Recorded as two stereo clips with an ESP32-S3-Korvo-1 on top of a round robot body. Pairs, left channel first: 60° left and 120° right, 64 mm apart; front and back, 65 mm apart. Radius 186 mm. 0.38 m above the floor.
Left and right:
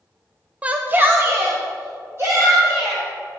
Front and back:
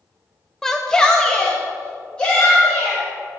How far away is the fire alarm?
I don't hear a fire alarm.